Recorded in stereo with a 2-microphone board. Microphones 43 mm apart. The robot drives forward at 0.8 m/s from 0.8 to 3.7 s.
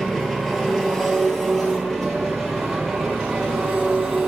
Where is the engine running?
5° left (ahead or behind), 4 m.